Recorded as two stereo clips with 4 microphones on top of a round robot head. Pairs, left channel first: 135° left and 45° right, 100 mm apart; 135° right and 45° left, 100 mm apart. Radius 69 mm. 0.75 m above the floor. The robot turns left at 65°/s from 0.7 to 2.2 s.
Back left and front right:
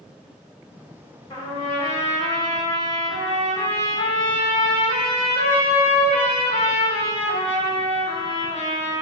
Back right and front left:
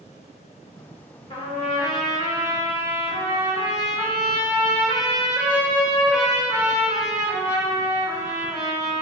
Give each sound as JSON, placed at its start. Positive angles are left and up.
{"t": 1.3, "sound": "a trumpet", "azimuth_deg": -175, "distance_m": 3.0}